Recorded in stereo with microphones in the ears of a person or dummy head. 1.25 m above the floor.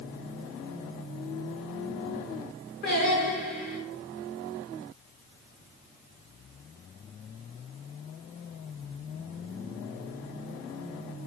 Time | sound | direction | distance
2.8 | singing | 40° left (ahead or behind) | 3 m